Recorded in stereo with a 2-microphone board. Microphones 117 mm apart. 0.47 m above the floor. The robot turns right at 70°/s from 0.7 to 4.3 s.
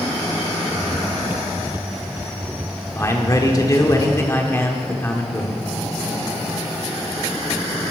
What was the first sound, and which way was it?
A man speaking, 45° left.